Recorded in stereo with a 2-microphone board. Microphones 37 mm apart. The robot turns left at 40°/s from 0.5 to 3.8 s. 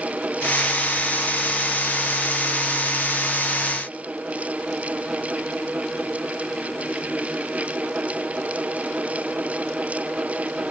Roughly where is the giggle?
I don't hear a giggle.